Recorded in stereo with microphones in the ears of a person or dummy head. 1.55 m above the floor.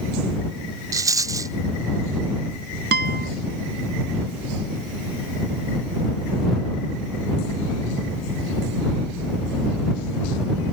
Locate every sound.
0.9 s a rattle: 20° right (ahead or behind)
2.9 s a guitar: 55° right (ahead or behind)